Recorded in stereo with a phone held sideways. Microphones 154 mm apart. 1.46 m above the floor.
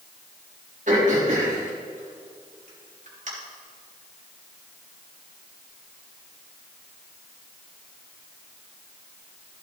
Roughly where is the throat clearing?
Right.